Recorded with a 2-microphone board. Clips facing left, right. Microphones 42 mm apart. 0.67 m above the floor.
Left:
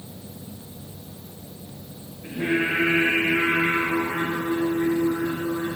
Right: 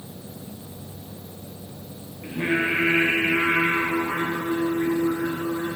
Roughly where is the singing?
Right.